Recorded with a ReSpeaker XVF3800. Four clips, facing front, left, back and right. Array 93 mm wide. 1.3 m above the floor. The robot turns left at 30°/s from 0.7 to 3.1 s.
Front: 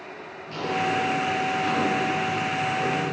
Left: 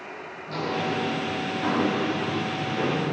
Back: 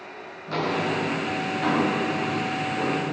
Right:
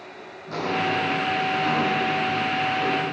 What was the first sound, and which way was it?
Footsteps, 170° right.